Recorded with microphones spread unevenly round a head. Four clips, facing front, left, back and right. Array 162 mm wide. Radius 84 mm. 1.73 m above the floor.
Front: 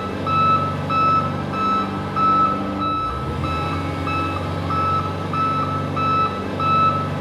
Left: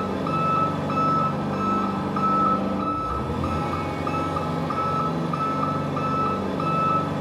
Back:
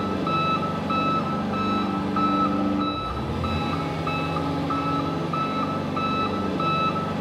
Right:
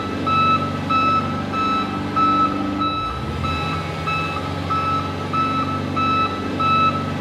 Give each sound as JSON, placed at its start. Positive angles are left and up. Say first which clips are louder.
{"t": 0.0, "sound": "an engine running", "louder": "right 5 dB, front 4 dB", "azimuth_deg": 110, "distance_m": 1.4}